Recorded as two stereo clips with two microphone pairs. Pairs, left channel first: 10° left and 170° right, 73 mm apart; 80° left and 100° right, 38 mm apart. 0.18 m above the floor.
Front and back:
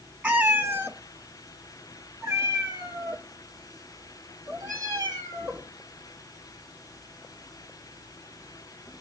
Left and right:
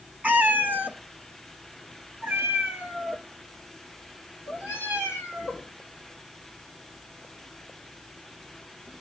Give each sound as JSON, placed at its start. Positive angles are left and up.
{"t": 0.2, "sound": "a cat meowing", "azimuth_deg": -110, "distance_m": 0.8}